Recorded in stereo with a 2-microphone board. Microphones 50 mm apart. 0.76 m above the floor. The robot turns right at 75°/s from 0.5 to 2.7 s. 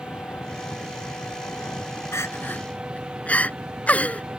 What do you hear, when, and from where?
0.0 s an engine running: 35° left; by 4.4 s 160° right
2.1 s crying: 75° left (ahead or behind); by 4.2 s 30° left (ahead or behind)